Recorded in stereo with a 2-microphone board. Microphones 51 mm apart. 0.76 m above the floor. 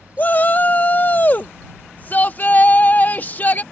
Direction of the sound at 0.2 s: 35° left (ahead or behind).